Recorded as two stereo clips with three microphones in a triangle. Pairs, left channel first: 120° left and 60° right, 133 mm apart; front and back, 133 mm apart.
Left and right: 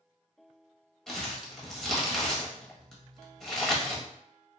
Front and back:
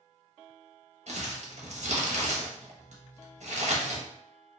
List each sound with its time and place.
1.1 s crumpling: 155° right, 0.7 m